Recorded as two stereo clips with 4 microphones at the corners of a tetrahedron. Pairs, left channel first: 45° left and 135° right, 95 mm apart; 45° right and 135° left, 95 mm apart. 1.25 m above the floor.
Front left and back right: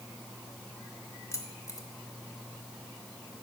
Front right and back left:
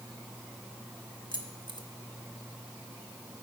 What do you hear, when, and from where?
1.3 s keys jangling: 100° left, 1.3 m